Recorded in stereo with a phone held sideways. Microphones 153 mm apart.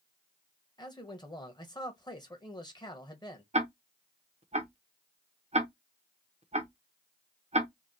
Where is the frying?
No frying in this recording.